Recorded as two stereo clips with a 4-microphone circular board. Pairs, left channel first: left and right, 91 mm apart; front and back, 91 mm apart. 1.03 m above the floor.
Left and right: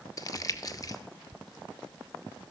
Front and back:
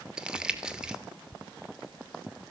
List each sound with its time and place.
0.2 s crumpling: 105° left, 0.8 m